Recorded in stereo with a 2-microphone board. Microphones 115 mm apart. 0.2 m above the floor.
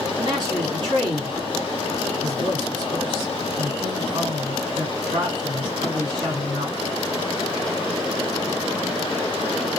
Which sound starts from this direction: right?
A man speaking, at 0.2 s.